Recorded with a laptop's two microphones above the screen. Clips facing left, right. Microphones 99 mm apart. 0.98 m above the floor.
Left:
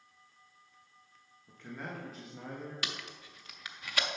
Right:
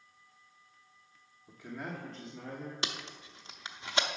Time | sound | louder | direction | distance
1.5 | a man speaking | right 2 dB | 15° right (ahead or behind) | 0.9 m
2.8 | tape being pulled | right 2 dB | 25° right (ahead or behind) | 0.6 m